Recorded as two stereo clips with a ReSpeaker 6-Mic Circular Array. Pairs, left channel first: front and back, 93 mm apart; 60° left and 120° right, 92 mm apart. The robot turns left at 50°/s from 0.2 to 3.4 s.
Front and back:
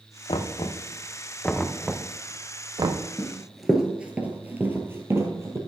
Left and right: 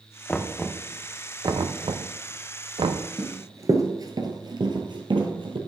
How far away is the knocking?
About 0.5 m.